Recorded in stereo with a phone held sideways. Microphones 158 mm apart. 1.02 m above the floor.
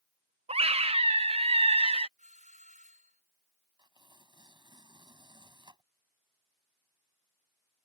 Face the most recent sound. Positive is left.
turn(degrees=-25)  # may be behind; listen again after turning